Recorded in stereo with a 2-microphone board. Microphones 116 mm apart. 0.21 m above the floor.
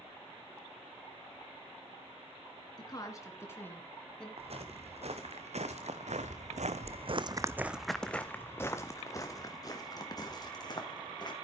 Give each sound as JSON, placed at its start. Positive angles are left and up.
{"t": 2.8, "sound": "a woman speaking", "side_deg": 35, "distance_m": 3.0}
{"t": 4.4, "sound": "footsteps", "side_deg": -60, "distance_m": 2.5}